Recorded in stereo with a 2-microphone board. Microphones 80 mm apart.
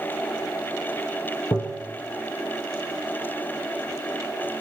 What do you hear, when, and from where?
1.5 s tapping: 45° left (ahead or behind), 3 m